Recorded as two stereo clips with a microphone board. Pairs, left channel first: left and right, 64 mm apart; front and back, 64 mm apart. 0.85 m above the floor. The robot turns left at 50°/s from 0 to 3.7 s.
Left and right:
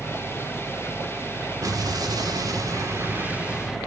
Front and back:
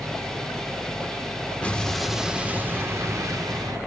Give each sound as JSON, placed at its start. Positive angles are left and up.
{"t": 1.6, "sound": "an explosion", "azimuth_deg": -70, "distance_m": 1.7}